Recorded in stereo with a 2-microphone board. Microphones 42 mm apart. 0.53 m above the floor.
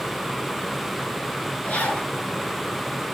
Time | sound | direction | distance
1.6 | a zipper | 35° left (ahead or behind) | 4.5 m